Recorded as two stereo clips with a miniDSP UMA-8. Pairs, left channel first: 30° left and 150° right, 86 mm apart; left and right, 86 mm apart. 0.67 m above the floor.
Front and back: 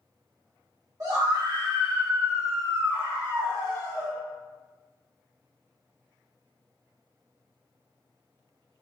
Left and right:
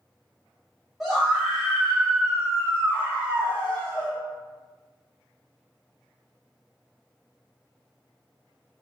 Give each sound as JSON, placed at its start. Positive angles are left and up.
{"t": 1.0, "sound": "a scream", "azimuth_deg": -175, "distance_m": 1.4}